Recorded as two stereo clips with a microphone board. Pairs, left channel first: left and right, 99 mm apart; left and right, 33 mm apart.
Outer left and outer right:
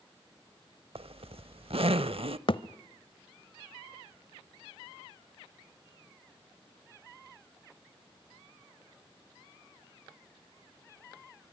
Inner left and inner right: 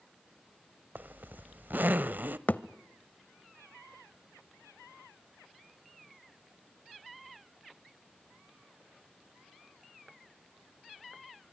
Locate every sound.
0.9 s a zipper: 70° right (ahead or behind), 0.7 m
2.5 s a thud: 60° left (ahead or behind), 0.8 m